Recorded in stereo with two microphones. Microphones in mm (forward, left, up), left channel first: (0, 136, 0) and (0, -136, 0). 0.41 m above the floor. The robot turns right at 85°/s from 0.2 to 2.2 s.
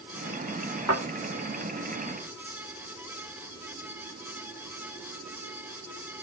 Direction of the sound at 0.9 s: 70° right (ahead or behind).